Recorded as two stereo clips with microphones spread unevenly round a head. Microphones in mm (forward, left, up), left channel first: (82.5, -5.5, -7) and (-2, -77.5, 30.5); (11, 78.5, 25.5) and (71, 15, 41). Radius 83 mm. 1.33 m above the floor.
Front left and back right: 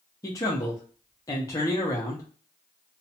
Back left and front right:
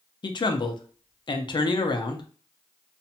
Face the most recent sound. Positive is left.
turn(degrees=105)